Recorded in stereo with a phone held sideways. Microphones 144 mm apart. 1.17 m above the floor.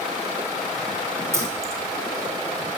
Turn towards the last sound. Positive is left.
turn(degrees=-20)  # may be behind; listen again after turning